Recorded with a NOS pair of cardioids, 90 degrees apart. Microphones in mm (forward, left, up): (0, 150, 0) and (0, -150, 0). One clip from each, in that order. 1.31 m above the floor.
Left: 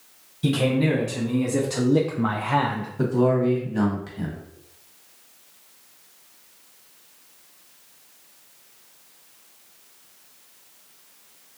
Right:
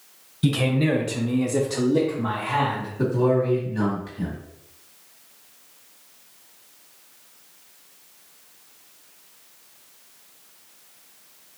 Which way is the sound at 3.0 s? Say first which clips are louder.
Even; 40° left.